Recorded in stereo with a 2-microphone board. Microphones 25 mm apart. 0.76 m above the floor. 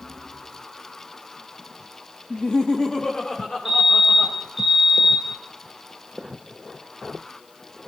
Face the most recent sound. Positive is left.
turn(degrees=-10)  # may be behind; listen again after turning